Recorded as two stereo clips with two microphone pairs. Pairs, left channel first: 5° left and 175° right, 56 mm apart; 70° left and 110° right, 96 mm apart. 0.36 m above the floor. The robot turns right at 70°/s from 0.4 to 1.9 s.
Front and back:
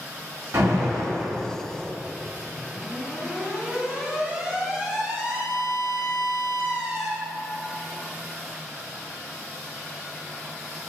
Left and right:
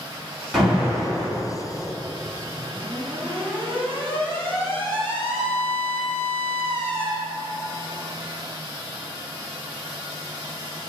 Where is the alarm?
160° left, 3.5 m; by 7.1 s 105° right, 3.5 m.